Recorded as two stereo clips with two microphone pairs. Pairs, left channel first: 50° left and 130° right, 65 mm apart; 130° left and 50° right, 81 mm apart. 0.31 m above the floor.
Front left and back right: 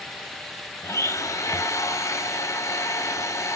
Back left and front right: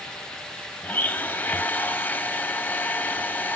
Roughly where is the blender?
Ahead left.